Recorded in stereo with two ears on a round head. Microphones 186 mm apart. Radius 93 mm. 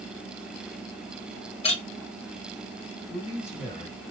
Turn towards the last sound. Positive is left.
turn(degrees=35)  # may be behind; listen again after turning